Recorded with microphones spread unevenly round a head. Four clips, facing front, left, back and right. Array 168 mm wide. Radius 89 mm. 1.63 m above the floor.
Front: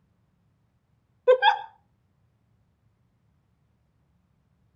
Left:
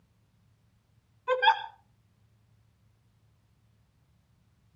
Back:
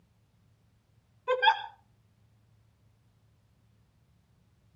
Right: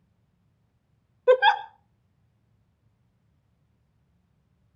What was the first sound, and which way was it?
A giggle, 35° right.